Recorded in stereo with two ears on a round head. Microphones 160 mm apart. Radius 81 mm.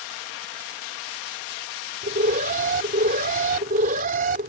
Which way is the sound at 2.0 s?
50° right (ahead or behind).